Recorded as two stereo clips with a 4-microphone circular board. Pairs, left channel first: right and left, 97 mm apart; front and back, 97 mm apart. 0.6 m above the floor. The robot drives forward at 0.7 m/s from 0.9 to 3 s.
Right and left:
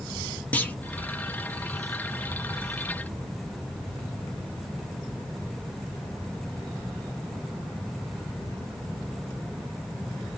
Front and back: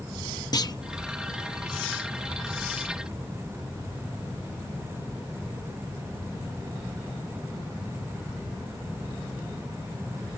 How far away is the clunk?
About 0.7 m.